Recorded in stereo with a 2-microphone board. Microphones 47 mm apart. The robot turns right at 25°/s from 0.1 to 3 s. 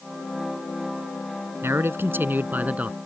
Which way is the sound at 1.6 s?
65° right.